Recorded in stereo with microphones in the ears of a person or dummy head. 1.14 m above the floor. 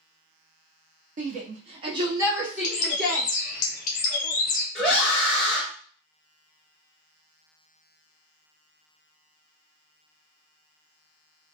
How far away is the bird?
About 0.5 m.